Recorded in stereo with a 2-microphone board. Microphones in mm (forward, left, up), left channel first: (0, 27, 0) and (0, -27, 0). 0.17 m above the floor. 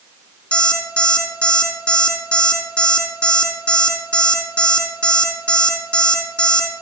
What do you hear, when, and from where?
0.5 s an alarm clock: 20° left (ahead or behind), 4.5 m